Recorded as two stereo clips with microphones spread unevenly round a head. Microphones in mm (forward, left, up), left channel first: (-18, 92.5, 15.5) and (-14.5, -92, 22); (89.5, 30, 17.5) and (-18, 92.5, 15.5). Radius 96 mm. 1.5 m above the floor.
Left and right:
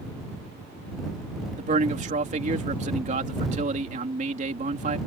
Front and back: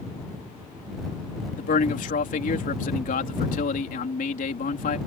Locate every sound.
1.6 s a man speaking: 35° right